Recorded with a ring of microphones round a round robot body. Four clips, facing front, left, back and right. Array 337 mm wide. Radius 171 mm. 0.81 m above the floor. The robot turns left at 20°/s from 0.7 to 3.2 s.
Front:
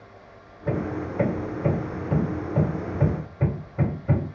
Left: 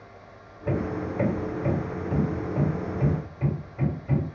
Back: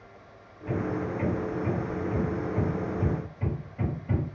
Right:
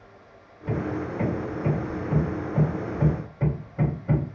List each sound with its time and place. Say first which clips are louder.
0.7 s hammering: even, front 2 dB; 35° left, 3 m; by 4.2 s 15° right, 3 m